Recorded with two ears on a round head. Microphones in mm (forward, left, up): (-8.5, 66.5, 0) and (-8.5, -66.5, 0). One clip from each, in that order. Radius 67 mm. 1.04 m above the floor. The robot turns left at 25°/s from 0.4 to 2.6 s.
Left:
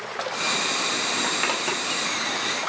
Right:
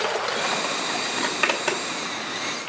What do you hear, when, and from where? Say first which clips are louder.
1.2 s a zipper: right 1 dB; 5° right (ahead or behind), 0.9 m; by 2.7 s 40° right (ahead or behind), 0.9 m